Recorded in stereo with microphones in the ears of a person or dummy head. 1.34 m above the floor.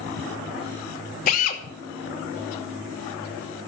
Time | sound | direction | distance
1.3 | a drill | 45° left (ahead or behind) | 2 m